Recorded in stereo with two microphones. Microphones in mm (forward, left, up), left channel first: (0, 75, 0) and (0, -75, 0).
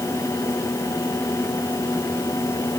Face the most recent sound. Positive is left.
No sound to turn to.